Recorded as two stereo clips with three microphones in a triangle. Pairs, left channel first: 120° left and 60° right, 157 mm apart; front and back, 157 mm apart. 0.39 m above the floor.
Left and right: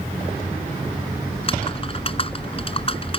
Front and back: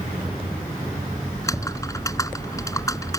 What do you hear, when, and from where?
1.3 s typing on a keyboard: 70° left